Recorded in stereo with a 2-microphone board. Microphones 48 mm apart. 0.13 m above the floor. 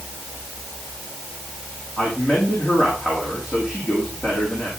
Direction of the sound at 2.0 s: 10° right (ahead or behind).